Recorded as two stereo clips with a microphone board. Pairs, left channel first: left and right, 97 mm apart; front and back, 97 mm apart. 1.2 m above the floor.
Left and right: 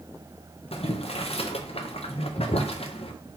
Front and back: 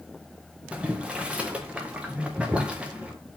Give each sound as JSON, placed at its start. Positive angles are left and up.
{"t": 0.7, "sound": "boiling", "azimuth_deg": 100, "distance_m": 0.6}